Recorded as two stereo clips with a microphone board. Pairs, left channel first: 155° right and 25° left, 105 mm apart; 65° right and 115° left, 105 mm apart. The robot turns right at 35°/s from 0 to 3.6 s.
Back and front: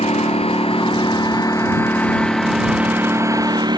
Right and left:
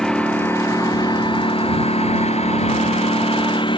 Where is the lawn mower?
155° right; by 3.8 s 30° right.